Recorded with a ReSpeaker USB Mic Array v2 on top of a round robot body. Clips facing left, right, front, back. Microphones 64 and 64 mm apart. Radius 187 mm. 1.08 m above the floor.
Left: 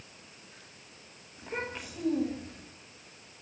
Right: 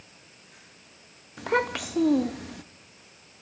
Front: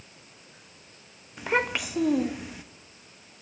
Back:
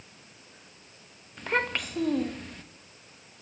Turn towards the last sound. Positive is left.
turn(degrees=-85)